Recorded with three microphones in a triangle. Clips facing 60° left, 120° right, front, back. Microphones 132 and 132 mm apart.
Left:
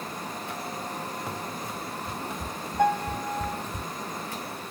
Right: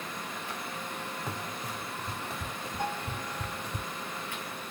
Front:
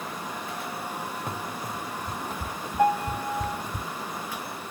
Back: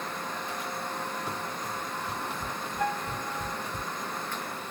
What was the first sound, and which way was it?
Running footsteps, 25° right.